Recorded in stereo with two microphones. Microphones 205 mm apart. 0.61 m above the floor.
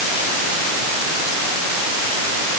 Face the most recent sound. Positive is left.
No sound to turn to.